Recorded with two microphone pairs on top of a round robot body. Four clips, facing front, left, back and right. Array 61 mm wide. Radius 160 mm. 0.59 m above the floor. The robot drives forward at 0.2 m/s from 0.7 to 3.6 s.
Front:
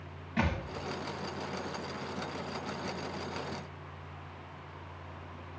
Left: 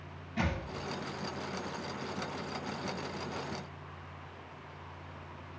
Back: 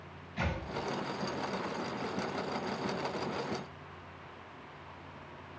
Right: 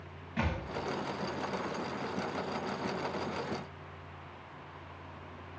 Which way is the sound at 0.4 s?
10° right.